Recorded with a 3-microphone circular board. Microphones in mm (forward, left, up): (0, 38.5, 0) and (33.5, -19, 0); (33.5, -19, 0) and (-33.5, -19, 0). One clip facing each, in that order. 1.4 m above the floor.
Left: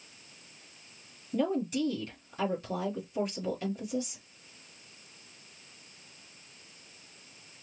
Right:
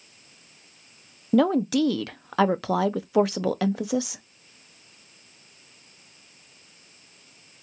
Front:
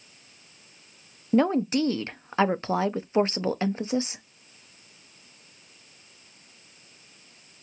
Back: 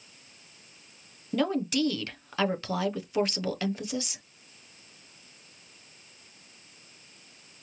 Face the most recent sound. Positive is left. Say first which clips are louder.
# right 9 dB, front 5 dB
turn(degrees=-65)